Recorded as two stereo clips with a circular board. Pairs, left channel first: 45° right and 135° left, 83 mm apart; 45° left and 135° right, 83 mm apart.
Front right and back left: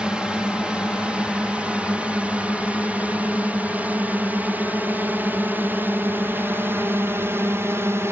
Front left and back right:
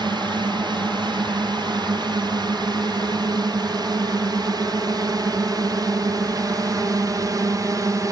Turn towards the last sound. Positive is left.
turn(degrees=-170)